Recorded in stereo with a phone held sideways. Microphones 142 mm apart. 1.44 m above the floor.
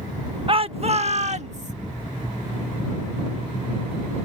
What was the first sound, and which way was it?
A shout, 40° right (ahead or behind).